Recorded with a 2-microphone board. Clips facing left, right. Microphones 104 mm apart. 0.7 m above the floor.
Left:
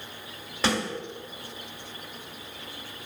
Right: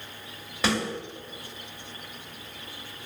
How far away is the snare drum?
About 1.3 m.